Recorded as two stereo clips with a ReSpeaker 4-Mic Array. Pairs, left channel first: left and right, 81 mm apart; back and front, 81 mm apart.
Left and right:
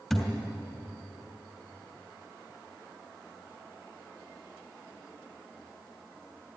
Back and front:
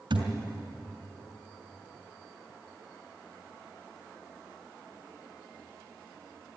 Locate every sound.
0.1 s a thud: straight ahead, 3 m